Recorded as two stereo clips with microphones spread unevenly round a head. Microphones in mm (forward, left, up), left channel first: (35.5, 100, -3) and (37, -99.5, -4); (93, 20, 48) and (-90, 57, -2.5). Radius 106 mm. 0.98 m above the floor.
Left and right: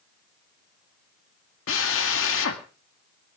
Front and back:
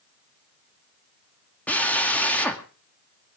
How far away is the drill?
About 2 m.